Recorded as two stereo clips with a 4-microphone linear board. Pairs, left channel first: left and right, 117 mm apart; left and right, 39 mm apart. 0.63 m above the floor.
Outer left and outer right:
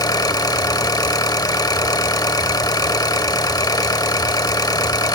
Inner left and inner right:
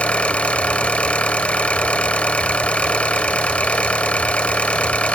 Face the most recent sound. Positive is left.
turn(degrees=35)  # may be behind; listen again after turning